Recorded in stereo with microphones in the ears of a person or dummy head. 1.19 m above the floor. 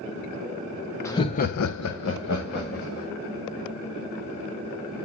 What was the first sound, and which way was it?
Laughter, 10° left (ahead or behind).